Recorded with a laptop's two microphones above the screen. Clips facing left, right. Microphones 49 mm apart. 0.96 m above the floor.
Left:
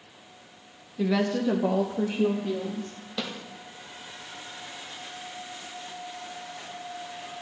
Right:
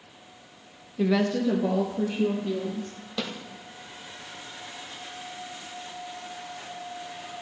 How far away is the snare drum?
About 0.9 m.